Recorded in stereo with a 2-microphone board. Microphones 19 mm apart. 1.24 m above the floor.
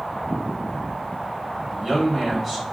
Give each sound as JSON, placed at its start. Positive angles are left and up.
{"t": 1.7, "sound": "a man speaking", "side_deg": -25, "distance_m": 1.6}